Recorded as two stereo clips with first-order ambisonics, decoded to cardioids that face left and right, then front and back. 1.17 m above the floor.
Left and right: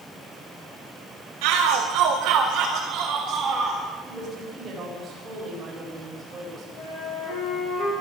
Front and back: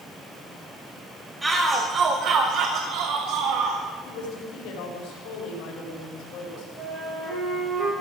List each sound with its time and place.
1.4 s a shout: 90° right, 1.5 m; by 3.8 s 160° right, 3 m
4.0 s a woman speaking: 15° right, 5.5 m
6.8 s a flute: 105° left, 9.5 m